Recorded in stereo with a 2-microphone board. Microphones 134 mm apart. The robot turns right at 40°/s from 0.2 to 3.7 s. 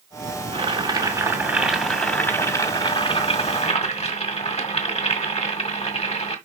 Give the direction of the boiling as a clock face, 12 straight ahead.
2 o'clock.